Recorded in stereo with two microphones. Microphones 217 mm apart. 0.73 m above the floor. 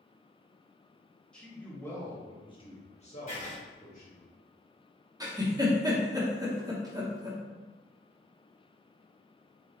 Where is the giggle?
15° right (ahead or behind), 0.9 m.